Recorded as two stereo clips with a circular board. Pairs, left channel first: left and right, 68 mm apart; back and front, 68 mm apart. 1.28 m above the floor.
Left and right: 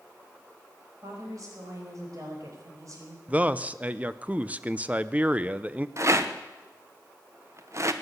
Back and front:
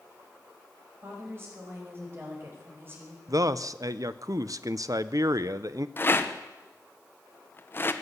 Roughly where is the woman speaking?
Ahead right.